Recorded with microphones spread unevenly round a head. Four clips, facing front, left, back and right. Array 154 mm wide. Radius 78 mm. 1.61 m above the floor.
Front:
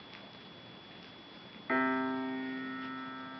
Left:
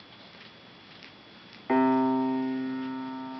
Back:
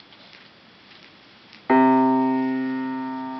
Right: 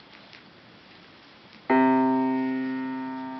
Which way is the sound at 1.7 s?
165° right.